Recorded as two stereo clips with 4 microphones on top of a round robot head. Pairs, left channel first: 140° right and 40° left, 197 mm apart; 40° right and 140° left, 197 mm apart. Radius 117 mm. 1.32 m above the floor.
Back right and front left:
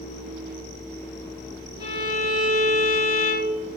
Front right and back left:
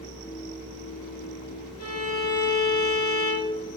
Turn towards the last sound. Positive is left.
turn(degrees=-30)